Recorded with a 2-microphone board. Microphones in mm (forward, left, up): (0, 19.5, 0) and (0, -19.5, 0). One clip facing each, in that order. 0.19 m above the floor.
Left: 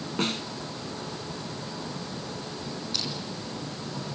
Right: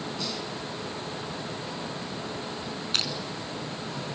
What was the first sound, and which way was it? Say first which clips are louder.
A snare drum: left 9 dB; 50° left (ahead or behind).